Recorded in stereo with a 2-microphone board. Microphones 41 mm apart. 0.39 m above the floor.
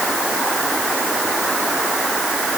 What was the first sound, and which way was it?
Only background noise.